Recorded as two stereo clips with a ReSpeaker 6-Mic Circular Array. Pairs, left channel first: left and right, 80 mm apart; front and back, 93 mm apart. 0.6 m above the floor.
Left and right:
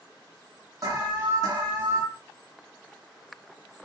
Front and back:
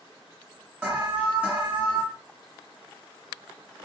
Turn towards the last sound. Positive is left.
turn(degrees=-115)